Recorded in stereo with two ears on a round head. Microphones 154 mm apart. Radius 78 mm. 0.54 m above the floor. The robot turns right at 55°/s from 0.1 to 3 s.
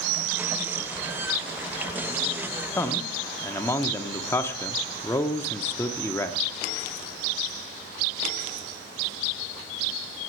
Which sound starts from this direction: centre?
A man speaking, at 2.8 s.